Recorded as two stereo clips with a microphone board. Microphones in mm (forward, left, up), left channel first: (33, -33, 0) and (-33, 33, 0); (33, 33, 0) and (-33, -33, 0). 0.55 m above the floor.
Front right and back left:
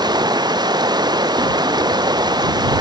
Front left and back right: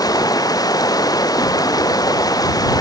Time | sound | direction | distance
0.0 | running water | 95° left | ?